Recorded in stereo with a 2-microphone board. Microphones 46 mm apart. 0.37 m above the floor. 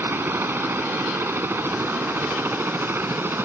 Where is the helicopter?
55° right (ahead or behind).